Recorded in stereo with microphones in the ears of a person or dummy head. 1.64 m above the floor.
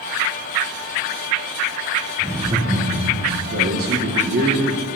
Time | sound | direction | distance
2.2 | laughter | 15° right (ahead or behind) | 1.1 m
3.5 | a man speaking | 50° right (ahead or behind) | 1.6 m